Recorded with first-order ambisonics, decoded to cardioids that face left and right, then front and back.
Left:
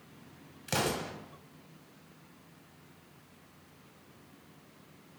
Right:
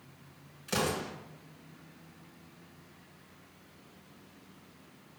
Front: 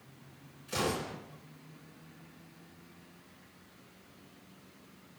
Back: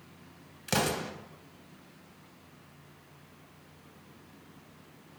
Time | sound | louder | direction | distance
0.7 | an explosion | even, back 3 dB | 165° left | 1.7 m